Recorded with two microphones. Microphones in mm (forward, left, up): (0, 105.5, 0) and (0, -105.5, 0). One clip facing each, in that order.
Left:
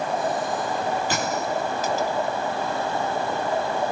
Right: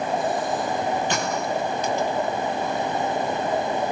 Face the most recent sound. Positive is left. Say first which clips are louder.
# even
turn(degrees=5)  # may be behind; listen again after turning